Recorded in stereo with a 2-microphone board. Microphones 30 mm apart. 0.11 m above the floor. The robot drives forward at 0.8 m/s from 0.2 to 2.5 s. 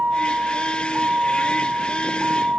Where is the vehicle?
65° right (ahead or behind); by 2.6 s 55° right (ahead or behind).